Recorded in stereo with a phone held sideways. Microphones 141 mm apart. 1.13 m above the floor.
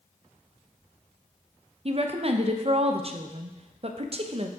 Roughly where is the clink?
No clink in this recording.